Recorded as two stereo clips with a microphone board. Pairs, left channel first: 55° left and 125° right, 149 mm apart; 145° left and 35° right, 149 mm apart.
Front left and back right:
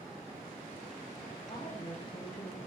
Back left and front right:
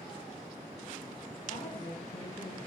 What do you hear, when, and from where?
1.5 s a woman speaking: 100° left, 6 m; by 2.6 s 115° left, 6.5 m